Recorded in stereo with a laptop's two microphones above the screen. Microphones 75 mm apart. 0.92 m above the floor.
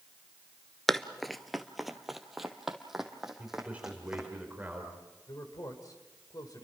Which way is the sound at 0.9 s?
5° left (ahead or behind).